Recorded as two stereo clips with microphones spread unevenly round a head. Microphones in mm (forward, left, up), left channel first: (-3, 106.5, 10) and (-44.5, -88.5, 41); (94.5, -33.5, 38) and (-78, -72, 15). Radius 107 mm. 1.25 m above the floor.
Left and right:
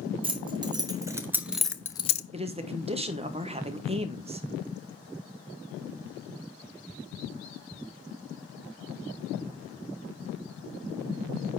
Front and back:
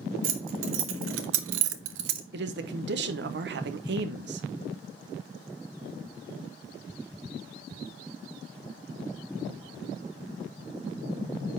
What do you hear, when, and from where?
0.2 s keys jangling: 165° right, 1.5 m; by 2.2 s 135° left, 0.5 m
2.3 s a man speaking: 165° right, 1.1 m